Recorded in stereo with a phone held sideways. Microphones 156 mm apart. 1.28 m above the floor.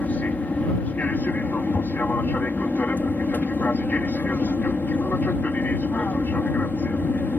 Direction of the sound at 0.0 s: 10° left (ahead or behind).